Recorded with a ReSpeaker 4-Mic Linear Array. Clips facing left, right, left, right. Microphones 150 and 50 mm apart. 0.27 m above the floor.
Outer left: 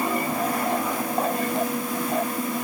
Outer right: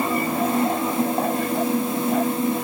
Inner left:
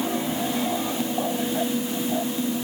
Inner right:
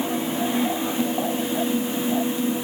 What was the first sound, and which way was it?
Only background noise.